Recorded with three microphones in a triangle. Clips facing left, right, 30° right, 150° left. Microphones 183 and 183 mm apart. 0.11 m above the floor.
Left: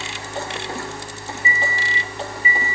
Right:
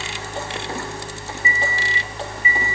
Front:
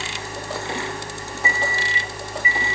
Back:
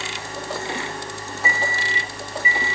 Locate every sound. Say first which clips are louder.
1.4 s a microwave: even, even; 70° right, 0.9 m